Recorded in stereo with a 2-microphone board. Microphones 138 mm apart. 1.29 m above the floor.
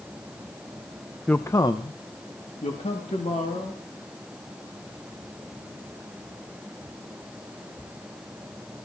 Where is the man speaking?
5° left (ahead or behind), 0.7 m; by 3.8 s 55° left (ahead or behind), 3 m.